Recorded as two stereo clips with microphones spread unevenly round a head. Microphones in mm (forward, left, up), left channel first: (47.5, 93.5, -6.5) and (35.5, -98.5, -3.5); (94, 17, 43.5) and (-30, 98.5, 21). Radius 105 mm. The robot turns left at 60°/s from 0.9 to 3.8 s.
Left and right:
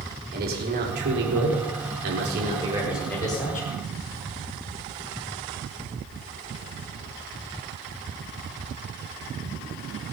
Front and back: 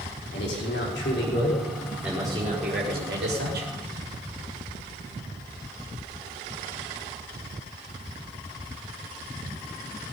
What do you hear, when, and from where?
0.3 s a man speaking: 55° right, 4.5 m; by 3.7 s 135° left, 4.5 m